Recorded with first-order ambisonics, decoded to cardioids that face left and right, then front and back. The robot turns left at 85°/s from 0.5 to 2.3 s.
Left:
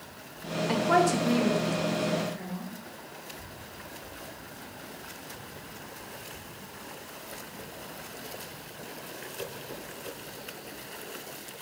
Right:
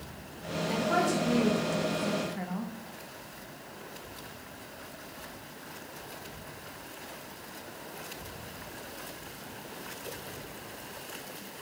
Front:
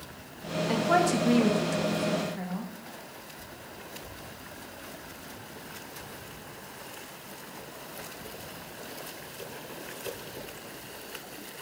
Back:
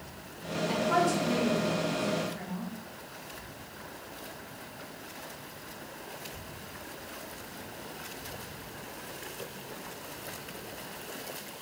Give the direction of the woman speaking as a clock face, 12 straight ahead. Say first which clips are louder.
Left 4 dB, front 2 dB; 9 o'clock.